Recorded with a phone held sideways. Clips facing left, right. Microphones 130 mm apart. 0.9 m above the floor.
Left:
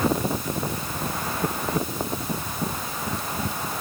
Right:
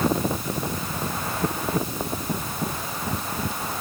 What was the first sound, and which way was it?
Only background noise.